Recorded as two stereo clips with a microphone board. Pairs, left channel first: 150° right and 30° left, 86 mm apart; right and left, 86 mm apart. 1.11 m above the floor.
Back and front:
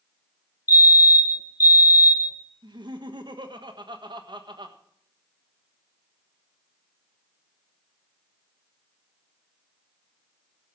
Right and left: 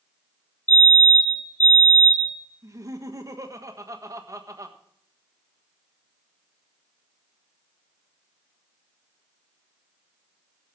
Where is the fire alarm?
145° right, 1.2 m.